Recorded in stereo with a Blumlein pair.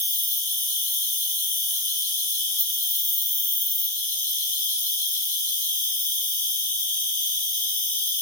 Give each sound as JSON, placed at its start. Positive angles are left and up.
{"t": 0.0, "sound": "an insect", "azimuth_deg": 70, "distance_m": 0.9}